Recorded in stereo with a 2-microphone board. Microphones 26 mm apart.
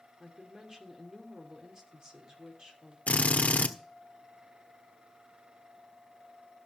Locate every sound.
0.2 s a woman speaking: 30° right (ahead or behind), 2.5 m
3.1 s a drill: 75° left (ahead or behind), 1.1 m